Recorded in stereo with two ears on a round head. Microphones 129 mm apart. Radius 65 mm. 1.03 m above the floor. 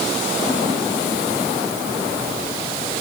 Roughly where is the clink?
No clink in this recording.